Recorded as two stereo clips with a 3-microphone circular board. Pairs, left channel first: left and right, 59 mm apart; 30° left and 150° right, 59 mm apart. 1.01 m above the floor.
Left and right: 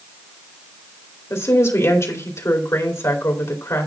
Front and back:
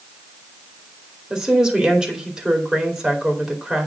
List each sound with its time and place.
1.3 s a woman speaking: 125° left, 2.5 m